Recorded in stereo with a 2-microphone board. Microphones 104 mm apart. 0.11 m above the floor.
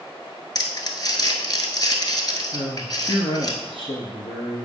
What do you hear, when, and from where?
0.6 s crumpling: 45° left (ahead or behind), 1.0 m
2.5 s a man speaking: 55° left (ahead or behind), 2.0 m